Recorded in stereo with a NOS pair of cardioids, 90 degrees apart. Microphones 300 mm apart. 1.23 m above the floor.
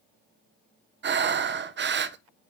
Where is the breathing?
35° right, 0.7 m.